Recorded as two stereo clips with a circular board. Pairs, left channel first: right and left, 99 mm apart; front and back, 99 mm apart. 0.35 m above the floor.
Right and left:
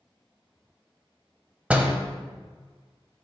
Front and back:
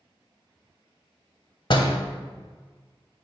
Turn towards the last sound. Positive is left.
turn(degrees=15)